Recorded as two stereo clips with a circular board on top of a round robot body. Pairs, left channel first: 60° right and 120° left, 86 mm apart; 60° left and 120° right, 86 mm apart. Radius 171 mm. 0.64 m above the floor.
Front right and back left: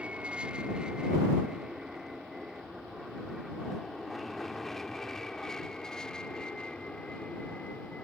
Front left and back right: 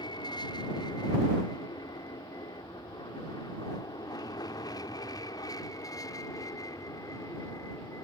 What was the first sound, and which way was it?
An aircraft, 45° left.